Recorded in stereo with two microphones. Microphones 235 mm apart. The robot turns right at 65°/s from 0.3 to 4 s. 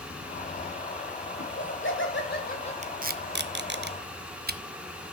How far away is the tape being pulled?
About 0.6 m.